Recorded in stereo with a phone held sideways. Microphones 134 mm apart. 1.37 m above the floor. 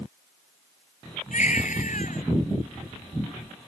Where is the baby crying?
70° left (ahead or behind).